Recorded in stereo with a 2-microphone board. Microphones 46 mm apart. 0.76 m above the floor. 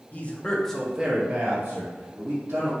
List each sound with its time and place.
0.1 s a man speaking: 40° left (ahead or behind), 0.6 m; by 2.7 s 65° right (ahead or behind), 1.2 m